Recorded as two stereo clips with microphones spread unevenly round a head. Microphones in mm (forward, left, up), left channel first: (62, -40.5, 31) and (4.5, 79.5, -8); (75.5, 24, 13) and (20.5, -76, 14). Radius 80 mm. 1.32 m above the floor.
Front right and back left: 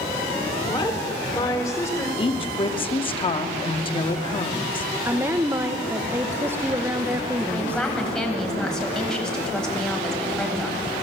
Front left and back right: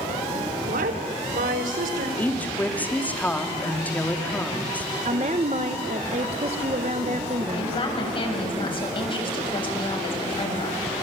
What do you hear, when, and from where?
0.7 s a woman speaking: 130° right, 3.5 m; by 2.1 s 140° right, 4 m
2.2 s a woman speaking: 15° right, 2.5 m
5.0 s a woman speaking: 170° right, 1.2 m
7.5 s a woman speaking: 20° left, 8.5 m